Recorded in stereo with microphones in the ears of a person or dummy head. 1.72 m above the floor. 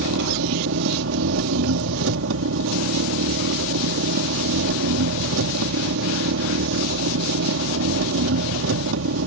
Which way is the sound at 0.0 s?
80° right.